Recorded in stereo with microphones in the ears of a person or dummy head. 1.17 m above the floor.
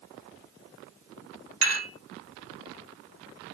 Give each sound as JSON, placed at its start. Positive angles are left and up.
{"t": 1.6, "sound": "dishes clattering", "side_deg": -40, "distance_m": 1.4}